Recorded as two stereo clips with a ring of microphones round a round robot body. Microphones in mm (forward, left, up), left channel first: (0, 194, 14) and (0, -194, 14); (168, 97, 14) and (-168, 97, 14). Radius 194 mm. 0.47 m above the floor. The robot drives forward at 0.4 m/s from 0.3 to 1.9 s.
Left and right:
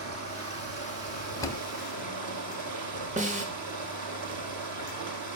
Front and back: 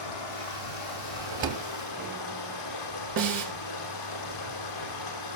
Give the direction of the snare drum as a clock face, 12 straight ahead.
5 o'clock.